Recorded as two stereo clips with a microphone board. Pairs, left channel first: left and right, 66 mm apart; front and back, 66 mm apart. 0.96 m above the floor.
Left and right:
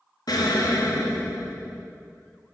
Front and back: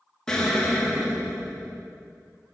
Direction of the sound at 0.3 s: 80° left.